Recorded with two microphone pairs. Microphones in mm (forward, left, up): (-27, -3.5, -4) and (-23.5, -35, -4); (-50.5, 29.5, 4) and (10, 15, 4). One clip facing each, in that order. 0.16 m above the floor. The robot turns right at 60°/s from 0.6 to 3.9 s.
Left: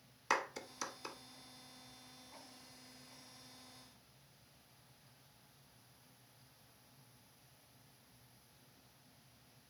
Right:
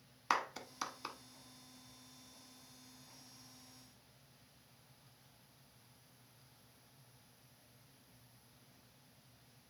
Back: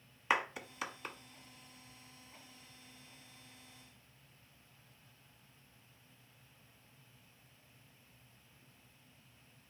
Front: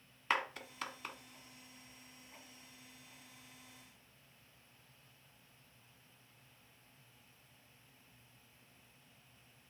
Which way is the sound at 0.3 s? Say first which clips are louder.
Right 1 dB, back 2 dB; 135° right.